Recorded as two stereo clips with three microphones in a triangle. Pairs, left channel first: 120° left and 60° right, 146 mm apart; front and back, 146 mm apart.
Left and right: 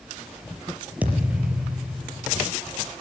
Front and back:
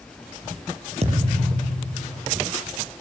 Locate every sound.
1.0 s a thud: 140° right, 4.5 m